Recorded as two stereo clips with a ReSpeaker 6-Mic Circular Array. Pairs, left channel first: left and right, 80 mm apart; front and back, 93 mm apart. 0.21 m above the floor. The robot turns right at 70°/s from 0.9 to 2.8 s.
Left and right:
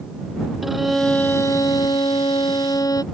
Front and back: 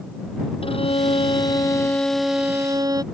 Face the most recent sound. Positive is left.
turn(degrees=130)